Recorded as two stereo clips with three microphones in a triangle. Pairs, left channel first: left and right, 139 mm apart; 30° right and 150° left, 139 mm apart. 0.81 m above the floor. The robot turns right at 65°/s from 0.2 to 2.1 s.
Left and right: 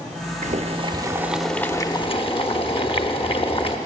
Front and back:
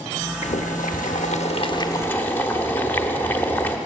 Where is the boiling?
65° right, 0.8 m; by 3.8 s 45° left, 0.8 m.